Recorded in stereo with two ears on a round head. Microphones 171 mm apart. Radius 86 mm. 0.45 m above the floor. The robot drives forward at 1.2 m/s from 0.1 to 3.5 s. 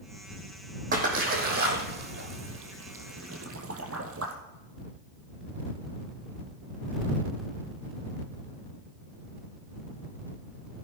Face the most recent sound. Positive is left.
turn(degrees=-85)